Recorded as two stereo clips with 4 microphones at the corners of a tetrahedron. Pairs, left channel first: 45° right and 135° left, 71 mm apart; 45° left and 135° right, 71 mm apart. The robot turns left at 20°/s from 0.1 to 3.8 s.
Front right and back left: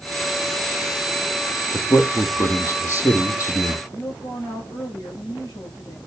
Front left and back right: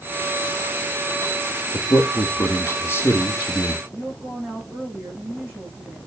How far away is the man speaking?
About 2.5 m.